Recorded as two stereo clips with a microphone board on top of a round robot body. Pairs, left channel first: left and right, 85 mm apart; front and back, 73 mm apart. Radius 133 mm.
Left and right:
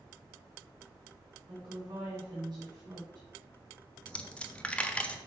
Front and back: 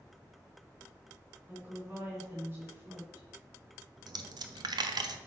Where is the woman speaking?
130° right, 2.5 m.